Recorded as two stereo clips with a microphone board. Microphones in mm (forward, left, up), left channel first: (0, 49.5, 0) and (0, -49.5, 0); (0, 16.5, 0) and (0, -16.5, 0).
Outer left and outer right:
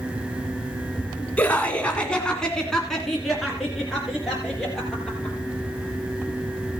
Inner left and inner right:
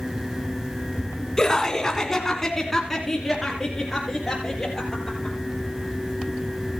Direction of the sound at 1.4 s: 15° left (ahead or behind).